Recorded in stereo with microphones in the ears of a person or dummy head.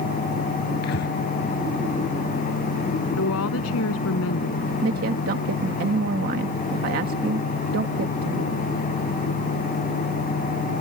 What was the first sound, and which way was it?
Breathing, 60° left (ahead or behind).